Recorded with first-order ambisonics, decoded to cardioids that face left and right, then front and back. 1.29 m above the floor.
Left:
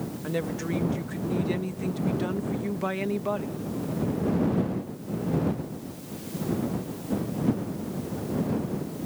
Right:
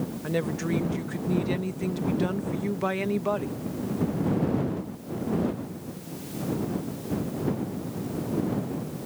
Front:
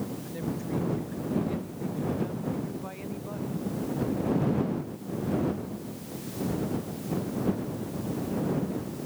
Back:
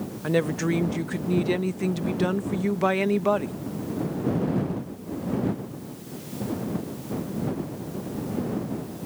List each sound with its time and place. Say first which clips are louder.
0.2 s a woman speaking: right 2 dB, back 11 dB; 175° right